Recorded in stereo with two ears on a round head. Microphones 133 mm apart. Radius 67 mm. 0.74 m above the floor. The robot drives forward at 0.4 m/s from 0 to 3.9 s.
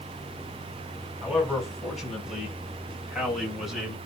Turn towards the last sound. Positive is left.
turn(degrees=0)  # may be behind; listen again after turning